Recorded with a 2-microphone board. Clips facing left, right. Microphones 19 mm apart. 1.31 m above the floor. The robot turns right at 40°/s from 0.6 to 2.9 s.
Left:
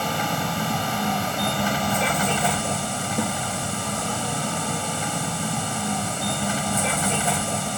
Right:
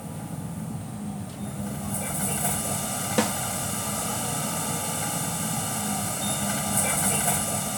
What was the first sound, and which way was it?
A vehicle, 75° left.